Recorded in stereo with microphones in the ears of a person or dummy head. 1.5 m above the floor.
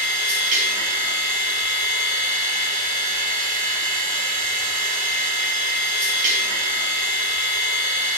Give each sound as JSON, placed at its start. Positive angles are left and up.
{"t": 0.0, "sound": "a machine running", "side_deg": -45, "distance_m": 1.2}